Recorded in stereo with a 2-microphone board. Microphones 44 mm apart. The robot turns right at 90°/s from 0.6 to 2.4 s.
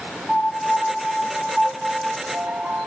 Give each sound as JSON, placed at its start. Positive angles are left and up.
{"t": 0.3, "sound": "a piano", "azimuth_deg": 165, "distance_m": 1.9}